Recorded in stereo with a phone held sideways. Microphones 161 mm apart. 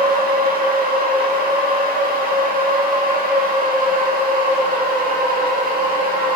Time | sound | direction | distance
0.0 | a machine running | 65° right (ahead or behind) | 1.6 m